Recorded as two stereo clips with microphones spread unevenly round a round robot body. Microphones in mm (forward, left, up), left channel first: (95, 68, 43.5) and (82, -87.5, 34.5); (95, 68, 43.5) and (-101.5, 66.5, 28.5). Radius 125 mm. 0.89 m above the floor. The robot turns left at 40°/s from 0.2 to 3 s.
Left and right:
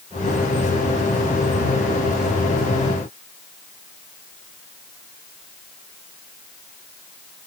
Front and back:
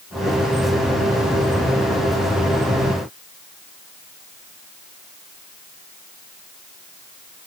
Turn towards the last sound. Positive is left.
No sound to turn to.